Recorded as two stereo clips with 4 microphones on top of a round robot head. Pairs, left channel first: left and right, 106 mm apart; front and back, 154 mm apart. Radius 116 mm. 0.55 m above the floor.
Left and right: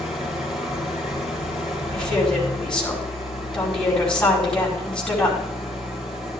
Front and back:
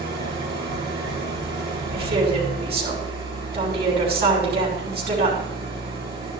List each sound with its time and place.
0.0 s an engine running: 175° right, 5 m
1.9 s a woman speaking: 175° left, 5 m